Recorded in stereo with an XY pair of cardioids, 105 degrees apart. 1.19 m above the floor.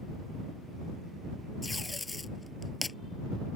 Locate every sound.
1.6 s tape being pulled: 20° left